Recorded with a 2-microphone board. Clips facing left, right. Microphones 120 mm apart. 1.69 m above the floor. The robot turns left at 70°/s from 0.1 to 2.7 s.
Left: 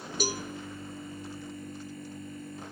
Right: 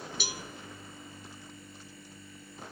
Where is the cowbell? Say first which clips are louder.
Left 12 dB; 45° left (ahead or behind), 0.6 m; by 0.4 s 30° left (ahead or behind), 0.6 m.